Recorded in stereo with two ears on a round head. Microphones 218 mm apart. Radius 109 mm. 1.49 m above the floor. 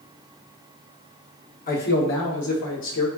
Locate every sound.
1.7 s a man speaking: 40° left (ahead or behind), 1.0 m; by 3.1 s 80° left, 1.3 m